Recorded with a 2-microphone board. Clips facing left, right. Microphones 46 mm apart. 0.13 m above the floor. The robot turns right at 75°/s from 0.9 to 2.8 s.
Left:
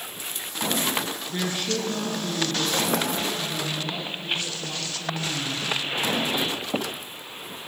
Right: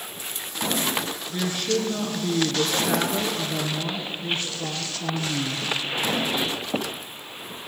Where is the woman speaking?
155° left, 1.7 m; by 5.8 s 95° right, 1.7 m.